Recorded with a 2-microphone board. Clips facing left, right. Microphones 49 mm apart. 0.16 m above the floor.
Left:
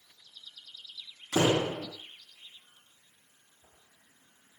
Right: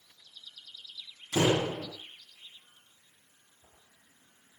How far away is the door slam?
About 6 m.